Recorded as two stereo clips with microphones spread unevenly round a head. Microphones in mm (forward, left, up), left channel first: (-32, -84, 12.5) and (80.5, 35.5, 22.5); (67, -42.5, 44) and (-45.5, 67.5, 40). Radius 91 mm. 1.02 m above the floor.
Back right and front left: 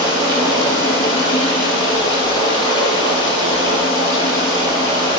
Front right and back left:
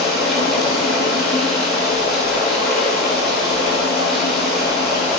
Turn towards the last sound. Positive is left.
turn(degrees=-135)